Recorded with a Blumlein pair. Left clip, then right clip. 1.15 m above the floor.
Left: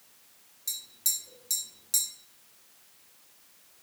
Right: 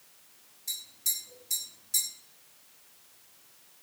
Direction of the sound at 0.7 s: 65° left.